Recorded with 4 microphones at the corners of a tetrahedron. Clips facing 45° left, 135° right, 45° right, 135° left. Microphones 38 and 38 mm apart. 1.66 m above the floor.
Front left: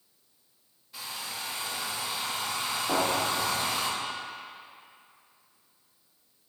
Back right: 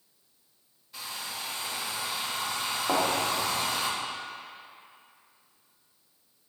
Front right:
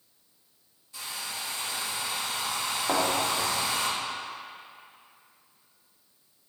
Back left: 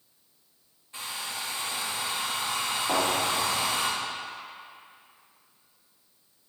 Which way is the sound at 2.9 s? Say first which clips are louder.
Back right 1 dB, even; 105° right.